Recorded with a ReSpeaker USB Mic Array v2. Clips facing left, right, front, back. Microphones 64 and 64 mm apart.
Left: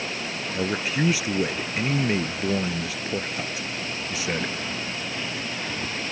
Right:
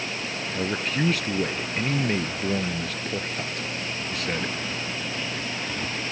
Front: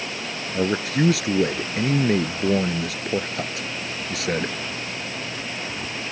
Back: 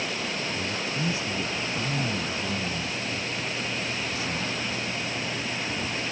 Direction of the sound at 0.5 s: 5° left.